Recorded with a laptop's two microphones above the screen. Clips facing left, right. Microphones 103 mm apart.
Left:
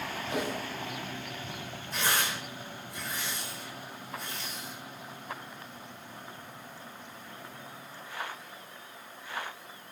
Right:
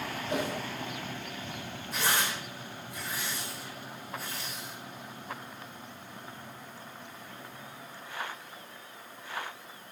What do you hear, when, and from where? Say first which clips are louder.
0.3 s a whoosh: right 1 dB; 30° right (ahead or behind), 5 m
1.9 s tearing paper: even; 5° right (ahead or behind), 4.5 m